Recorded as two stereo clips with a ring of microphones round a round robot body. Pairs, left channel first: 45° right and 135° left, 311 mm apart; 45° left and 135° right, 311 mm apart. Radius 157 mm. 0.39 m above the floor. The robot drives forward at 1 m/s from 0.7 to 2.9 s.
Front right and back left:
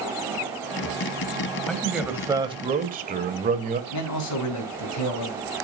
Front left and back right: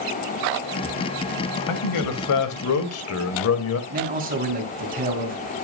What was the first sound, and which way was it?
A man speaking, 40° left.